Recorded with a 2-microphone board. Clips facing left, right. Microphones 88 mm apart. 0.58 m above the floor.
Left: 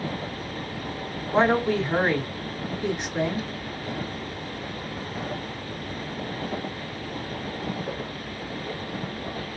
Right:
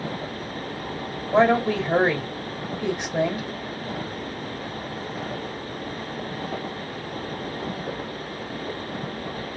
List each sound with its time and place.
1.3 s a woman speaking: 70° right (ahead or behind), 2.5 m